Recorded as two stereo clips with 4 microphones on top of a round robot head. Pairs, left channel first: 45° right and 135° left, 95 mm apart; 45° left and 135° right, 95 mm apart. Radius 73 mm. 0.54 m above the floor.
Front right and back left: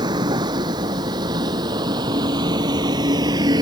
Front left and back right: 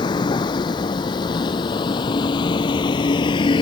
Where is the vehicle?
90° left; by 3.6 s 85° left.